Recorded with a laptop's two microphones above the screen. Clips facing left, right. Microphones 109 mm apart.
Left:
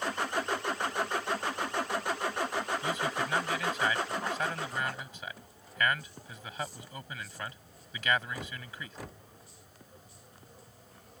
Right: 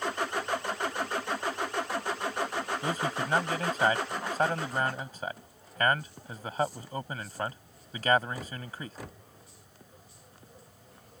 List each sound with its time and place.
2.8 s a man speaking: 40° right (ahead or behind)